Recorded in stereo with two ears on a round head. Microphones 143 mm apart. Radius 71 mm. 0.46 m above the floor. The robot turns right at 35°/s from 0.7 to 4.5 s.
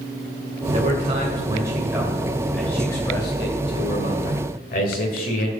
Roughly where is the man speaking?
Ahead right.